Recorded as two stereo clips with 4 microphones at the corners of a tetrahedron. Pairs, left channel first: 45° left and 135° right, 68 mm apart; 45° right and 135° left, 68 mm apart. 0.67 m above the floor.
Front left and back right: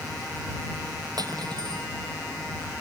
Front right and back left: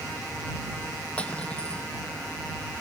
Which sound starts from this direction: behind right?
Cutlery clinking, at 1.2 s.